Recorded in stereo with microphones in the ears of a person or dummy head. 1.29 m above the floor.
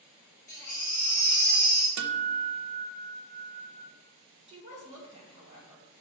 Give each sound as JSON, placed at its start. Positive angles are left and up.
{"t": 0.5, "sound": "a baby crying", "side_deg": 15, "distance_m": 3.5}
{"t": 2.0, "sound": "a guitar", "side_deg": -75, "distance_m": 0.7}
{"t": 4.5, "sound": "a woman speaking", "side_deg": -30, "distance_m": 2.0}